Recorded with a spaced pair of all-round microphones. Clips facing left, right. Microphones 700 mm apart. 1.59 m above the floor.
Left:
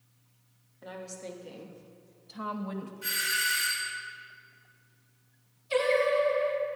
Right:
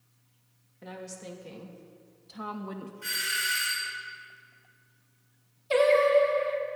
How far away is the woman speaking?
About 1.8 m.